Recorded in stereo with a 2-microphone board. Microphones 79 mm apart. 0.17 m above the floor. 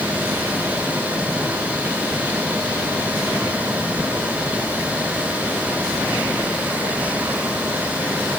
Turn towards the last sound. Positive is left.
No sound to turn to.